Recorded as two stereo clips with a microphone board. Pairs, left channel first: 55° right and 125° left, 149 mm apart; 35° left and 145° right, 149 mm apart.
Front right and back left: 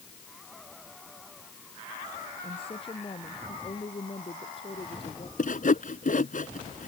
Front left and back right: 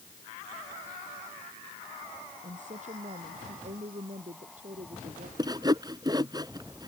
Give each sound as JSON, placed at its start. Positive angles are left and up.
{"t": 2.4, "sound": "a woman speaking", "azimuth_deg": -110}
{"t": 5.4, "sound": "sawing", "azimuth_deg": -80}